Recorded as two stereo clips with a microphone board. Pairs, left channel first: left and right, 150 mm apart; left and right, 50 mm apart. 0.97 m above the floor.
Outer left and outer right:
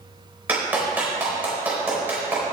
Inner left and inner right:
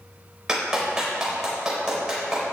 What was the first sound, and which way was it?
A clap, 10° right (ahead or behind).